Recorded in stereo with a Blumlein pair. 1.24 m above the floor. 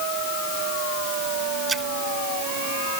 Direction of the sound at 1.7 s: 10° right.